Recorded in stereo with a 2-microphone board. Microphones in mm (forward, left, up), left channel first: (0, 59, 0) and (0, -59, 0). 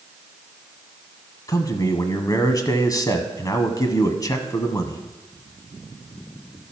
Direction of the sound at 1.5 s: 30° left (ahead or behind).